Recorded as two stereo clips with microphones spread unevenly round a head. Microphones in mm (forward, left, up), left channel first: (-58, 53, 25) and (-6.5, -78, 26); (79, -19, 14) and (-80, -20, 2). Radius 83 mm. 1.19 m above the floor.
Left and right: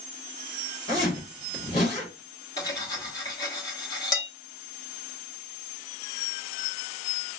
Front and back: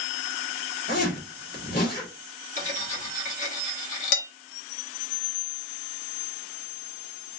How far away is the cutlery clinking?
About 1.0 m.